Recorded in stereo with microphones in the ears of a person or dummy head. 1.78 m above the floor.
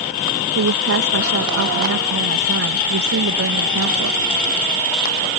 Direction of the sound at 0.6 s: 80° right.